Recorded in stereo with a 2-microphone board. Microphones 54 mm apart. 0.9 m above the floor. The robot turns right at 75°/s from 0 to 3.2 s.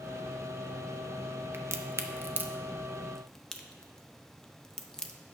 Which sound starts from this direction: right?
A crack, at 1.5 s.